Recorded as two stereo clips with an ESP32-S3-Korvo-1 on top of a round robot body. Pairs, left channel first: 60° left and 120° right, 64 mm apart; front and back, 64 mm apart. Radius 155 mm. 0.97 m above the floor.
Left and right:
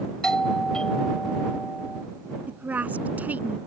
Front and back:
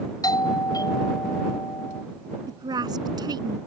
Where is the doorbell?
20° right.